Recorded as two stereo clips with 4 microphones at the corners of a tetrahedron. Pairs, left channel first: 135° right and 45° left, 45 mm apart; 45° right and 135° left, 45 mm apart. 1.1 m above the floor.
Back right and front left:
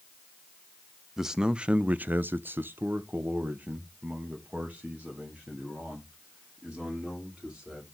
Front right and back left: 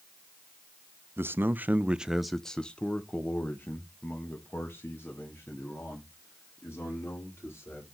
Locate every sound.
1.2 s a man speaking: 125° left, 0.6 m; by 7.8 s 15° right, 3 m